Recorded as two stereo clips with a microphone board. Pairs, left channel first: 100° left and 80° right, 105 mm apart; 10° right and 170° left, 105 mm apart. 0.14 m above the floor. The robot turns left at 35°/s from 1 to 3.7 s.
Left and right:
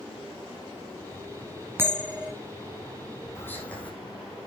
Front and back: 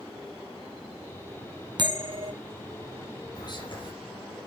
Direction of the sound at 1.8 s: 145° right.